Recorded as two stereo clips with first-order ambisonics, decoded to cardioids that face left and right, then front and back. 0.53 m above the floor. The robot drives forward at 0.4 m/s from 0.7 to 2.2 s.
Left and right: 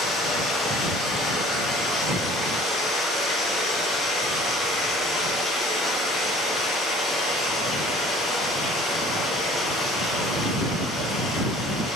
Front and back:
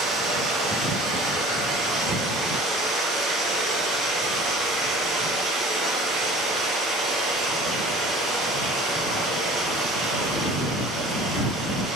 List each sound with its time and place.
0.0 s running water: 150° left, 1.5 m; by 12.0 s 160° left, 2.0 m